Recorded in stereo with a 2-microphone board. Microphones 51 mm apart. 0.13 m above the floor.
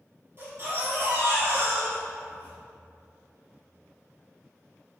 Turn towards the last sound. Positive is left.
turn(degrees=-45)  # may be behind; listen again after turning